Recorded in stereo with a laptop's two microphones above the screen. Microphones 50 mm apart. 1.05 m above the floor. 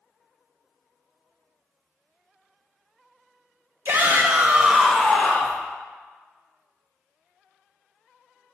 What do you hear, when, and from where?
3.9 s a shout: 50° right (ahead or behind), 1.1 m; by 5.6 s 30° left (ahead or behind), 1.2 m